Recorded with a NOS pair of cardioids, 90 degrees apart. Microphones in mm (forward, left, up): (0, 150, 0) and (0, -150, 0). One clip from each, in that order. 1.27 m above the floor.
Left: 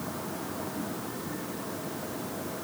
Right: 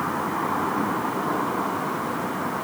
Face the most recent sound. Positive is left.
No sound to turn to.